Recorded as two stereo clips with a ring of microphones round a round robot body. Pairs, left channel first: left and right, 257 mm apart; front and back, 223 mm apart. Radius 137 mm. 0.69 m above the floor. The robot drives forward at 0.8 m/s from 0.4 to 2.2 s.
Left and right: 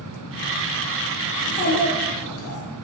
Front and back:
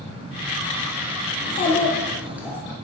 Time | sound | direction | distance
1.4 | a child speaking | 40° left | 0.9 m